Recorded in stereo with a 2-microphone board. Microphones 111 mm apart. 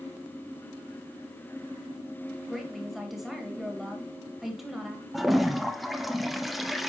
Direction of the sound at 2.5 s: 5° right (ahead or behind).